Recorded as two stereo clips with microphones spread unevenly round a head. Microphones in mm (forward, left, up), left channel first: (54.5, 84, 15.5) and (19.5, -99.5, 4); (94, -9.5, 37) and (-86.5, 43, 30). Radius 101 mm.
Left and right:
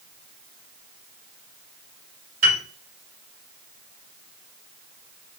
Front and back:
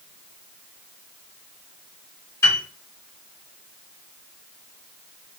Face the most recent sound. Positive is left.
turn(degrees=-90)